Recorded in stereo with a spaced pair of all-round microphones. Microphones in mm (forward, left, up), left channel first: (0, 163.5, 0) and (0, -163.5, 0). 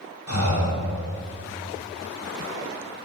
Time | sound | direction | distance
0.3 | breathing | 65° left (ahead or behind) | 4 m